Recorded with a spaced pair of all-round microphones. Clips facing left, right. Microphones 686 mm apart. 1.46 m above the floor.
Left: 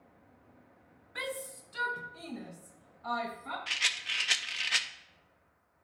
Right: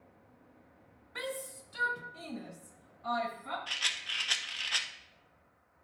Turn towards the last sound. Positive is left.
turn(degrees=55)  # may be behind; listen again after turning